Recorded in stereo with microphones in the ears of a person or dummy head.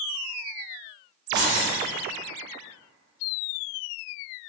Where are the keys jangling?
25° right (ahead or behind), 0.6 m.